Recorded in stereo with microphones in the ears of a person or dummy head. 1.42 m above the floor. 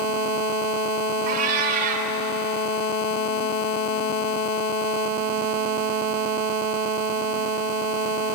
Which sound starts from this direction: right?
A cat meowing, at 1.3 s.